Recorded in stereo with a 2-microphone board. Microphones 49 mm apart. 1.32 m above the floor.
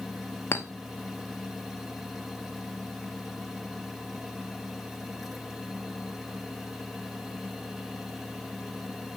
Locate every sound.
0.5 s a clink: 50° left (ahead or behind), 0.8 m